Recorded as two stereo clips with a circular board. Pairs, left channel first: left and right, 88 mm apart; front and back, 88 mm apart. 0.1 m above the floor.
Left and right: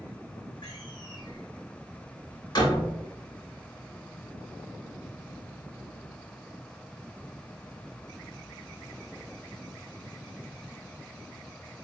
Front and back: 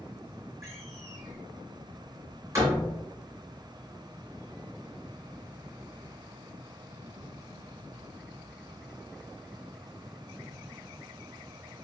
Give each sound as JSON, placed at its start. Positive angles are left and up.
{"t": 0.6, "sound": "a door slam", "azimuth_deg": 125, "distance_m": 4.5}